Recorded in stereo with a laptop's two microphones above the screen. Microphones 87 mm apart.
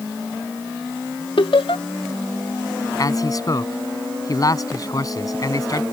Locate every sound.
1.4 s laughter: 75° left (ahead or behind)
3.0 s a man speaking: 45° left (ahead or behind)